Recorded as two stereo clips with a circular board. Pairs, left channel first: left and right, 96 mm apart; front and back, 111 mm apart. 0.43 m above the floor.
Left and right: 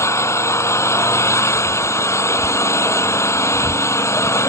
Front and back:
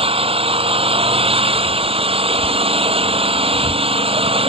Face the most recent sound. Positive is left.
turn(degrees=150)